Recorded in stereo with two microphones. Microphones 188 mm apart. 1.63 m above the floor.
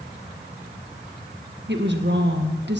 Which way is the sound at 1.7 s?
65° right (ahead or behind).